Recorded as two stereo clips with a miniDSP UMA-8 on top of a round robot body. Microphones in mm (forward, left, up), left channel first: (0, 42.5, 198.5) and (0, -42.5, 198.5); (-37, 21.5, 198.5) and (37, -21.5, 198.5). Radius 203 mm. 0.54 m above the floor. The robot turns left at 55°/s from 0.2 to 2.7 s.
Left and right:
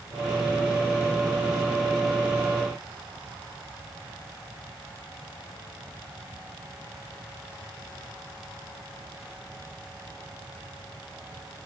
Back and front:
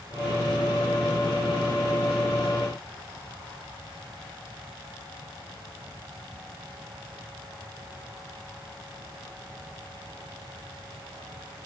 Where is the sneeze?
I don't hear a sneeze.